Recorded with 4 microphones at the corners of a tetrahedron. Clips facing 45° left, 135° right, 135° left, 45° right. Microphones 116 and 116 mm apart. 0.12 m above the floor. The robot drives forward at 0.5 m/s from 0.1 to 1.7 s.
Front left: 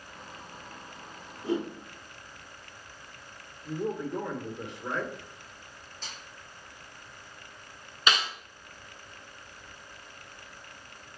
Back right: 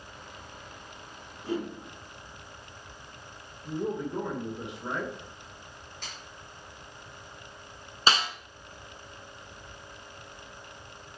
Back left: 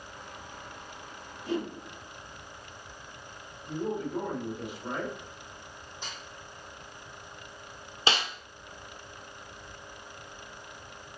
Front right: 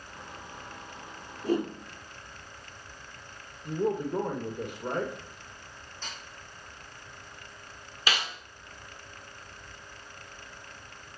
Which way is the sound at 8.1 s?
Straight behind.